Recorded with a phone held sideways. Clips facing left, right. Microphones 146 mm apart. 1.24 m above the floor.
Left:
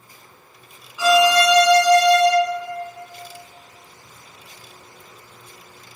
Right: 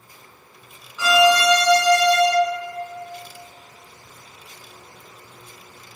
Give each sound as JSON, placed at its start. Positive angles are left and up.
{"t": 1.0, "sound": "a violin", "side_deg": 15, "distance_m": 0.5}